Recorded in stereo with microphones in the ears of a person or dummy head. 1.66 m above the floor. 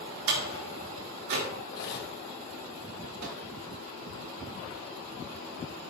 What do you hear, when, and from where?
0.3 s a door slam: 70° right (ahead or behind), 3 m
1.7 s cutlery clinking: 55° left (ahead or behind), 1.4 m
3.2 s a microwave: 55° right (ahead or behind), 2.0 m